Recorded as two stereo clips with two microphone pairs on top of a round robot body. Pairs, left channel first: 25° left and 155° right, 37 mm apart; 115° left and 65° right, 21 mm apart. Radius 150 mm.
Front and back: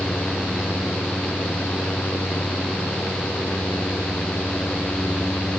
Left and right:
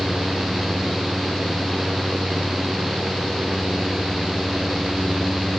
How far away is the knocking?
No knocking in this recording.